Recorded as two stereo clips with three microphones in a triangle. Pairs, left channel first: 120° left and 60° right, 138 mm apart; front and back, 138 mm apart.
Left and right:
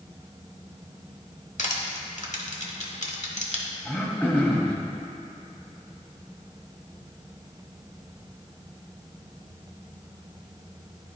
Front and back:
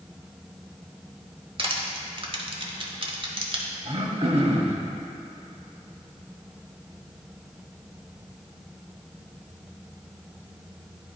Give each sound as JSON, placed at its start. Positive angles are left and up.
{"t": 1.6, "sound": "crushing", "azimuth_deg": 135, "distance_m": 1.0}
{"t": 3.9, "sound": "throat clearing", "azimuth_deg": -165, "distance_m": 1.1}